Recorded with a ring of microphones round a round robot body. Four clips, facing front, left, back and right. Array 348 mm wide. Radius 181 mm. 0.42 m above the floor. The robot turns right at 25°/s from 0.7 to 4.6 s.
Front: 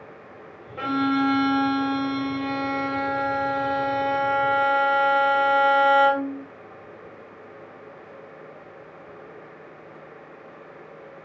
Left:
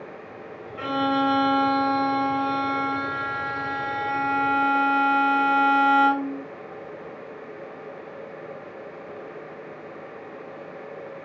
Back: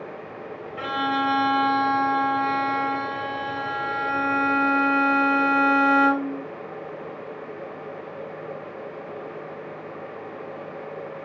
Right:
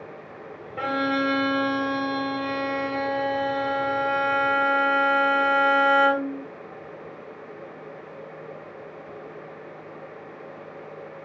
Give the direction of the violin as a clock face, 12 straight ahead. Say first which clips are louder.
Left 1 dB, front 2 dB; 3 o'clock.